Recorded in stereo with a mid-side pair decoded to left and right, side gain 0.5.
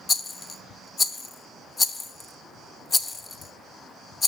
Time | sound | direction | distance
0.1 | a rattle | 35° left | 1.0 m